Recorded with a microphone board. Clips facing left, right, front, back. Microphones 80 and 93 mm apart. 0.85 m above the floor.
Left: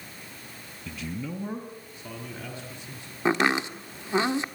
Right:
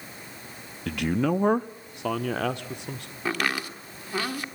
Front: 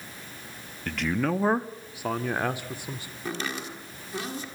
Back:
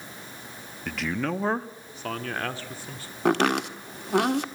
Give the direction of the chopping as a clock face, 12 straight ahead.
7 o'clock.